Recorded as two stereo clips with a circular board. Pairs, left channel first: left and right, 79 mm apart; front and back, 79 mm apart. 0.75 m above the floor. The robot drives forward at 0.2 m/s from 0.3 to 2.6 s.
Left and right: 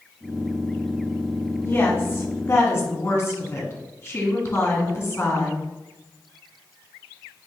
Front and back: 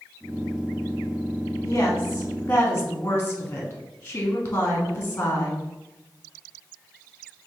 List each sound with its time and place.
1.6 s a woman speaking: 45° left, 1.2 m; by 5.6 s 55° left, 1.1 m